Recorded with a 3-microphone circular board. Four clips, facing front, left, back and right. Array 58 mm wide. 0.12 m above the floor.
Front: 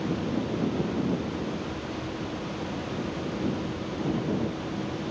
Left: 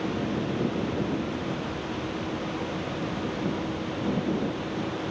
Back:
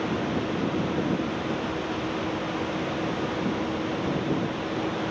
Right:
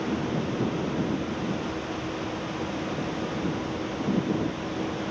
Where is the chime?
I don't hear a chime.